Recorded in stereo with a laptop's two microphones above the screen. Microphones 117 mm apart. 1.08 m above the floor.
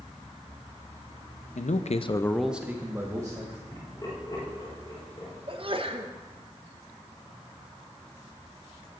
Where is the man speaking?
80° left, 0.8 m; by 3.6 s 30° right (ahead or behind), 2 m.